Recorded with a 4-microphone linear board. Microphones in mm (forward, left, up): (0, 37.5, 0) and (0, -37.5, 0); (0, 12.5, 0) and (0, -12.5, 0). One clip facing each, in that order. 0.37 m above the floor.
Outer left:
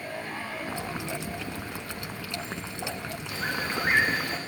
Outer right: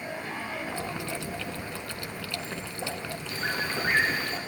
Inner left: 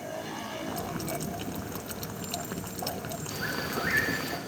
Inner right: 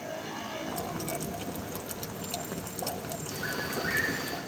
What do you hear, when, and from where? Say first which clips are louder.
0.7 s boiling: even, inner left 1 dB; 20° left (ahead or behind), 1.4 m
3.3 s a bird: even, inner left 1 dB; 65° left (ahead or behind), 7.5 m